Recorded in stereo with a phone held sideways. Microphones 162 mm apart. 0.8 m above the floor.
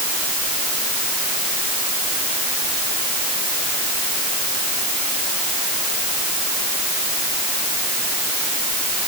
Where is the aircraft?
I don't hear an aircraft.